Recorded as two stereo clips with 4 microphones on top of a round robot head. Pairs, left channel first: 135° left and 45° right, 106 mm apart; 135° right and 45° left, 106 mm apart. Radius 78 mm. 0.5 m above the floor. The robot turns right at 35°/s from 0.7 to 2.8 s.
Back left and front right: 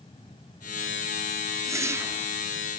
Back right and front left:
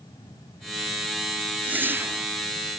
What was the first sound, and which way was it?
A whoosh, 20° right.